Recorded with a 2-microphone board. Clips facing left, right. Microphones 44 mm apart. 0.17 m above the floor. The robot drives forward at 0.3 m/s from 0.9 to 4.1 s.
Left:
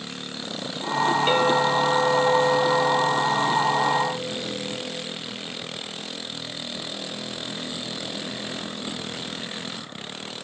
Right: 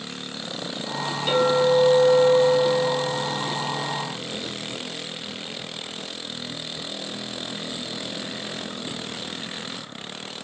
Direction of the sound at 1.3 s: 45° left (ahead or behind).